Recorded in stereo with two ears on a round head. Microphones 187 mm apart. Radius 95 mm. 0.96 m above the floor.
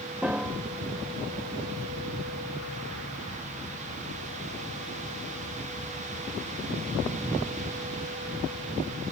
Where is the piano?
5° right (ahead or behind).